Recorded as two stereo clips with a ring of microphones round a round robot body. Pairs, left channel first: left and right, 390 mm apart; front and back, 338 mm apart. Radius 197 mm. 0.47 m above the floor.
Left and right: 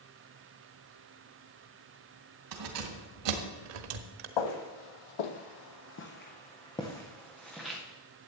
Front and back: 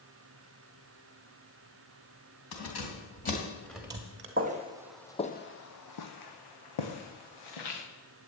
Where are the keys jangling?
50° right, 2.5 m; by 4.3 s 125° right, 1.4 m.